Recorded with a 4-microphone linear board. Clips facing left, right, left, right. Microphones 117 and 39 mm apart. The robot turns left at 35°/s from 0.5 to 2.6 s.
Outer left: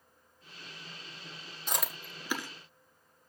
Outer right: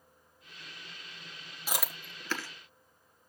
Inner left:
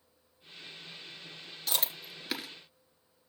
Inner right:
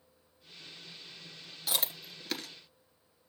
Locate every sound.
1.7 s chewing: 10° right (ahead or behind), 1.4 m; by 2.5 s 20° left (ahead or behind), 1.4 m